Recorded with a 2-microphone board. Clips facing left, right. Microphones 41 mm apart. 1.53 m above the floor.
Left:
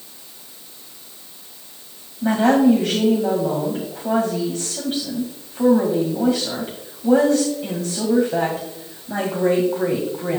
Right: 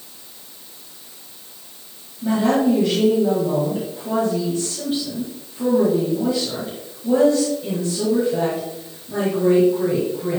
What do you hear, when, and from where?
2.2 s a woman speaking: 55° left (ahead or behind), 1.8 m